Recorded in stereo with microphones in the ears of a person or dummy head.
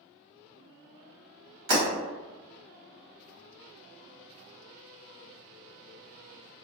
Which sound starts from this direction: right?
Breaking glass, at 1.7 s.